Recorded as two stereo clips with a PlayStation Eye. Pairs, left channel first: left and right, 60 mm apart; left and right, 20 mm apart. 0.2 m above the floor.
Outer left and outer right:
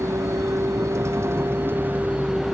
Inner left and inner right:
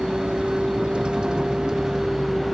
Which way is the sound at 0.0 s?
65° right (ahead or behind).